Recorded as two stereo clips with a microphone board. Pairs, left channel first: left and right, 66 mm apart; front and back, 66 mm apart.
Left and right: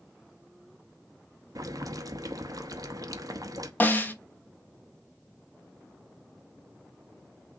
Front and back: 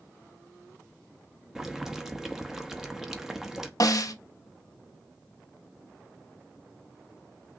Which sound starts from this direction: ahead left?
A snare drum, at 3.8 s.